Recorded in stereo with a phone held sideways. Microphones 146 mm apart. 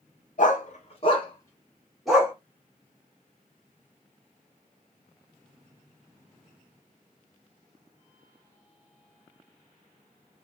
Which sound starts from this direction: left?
A dog barking, at 0.4 s.